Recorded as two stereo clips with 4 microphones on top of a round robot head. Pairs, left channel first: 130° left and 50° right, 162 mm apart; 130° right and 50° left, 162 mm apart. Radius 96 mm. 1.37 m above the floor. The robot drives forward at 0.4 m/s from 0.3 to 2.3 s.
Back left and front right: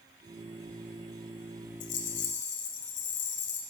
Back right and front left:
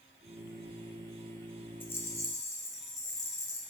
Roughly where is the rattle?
Behind left.